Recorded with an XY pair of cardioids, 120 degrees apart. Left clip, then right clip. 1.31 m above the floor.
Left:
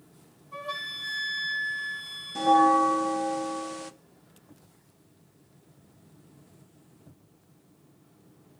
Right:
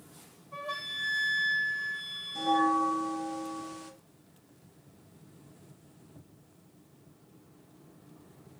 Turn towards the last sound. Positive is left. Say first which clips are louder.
# left 7 dB
turn(degrees=45)